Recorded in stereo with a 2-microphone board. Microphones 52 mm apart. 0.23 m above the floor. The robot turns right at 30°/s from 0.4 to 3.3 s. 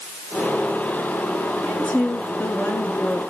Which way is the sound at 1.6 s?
10° left.